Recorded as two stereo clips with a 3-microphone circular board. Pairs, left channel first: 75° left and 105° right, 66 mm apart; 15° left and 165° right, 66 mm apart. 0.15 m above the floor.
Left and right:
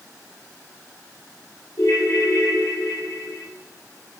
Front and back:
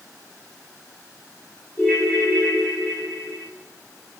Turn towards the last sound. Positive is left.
turn(degrees=80)